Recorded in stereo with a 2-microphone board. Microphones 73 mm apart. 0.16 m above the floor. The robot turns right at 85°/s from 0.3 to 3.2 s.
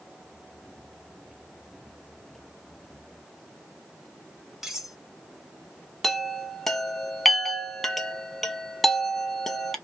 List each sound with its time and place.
4.6 s cutlery clinking: 5° right (ahead or behind), 0.9 m
6.0 s a chime: 5° left (ahead or behind), 0.7 m